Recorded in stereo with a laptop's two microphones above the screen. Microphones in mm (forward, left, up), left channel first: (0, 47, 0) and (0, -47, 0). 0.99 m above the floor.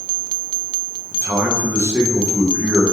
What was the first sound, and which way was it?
A man speaking, 25° right (ahead or behind).